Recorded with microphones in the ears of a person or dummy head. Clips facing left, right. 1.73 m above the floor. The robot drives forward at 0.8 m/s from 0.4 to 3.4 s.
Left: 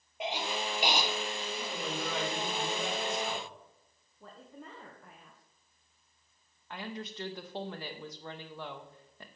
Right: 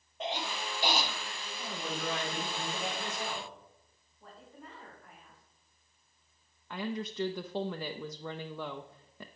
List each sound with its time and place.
0.2 s a cough: 15° left (ahead or behind), 2 m; by 1.1 s 20° left (ahead or behind), 1.7 m
1.6 s a man speaking: 75° left (ahead or behind), 5 m; by 3.5 s 85° left, 5 m
4.2 s a woman speaking: 55° left (ahead or behind), 1.6 m
6.7 s a woman speaking: 80° right, 0.6 m